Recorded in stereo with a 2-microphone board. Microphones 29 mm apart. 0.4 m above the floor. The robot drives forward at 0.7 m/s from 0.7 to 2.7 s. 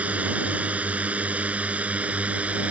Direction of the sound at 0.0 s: 55° right (ahead or behind).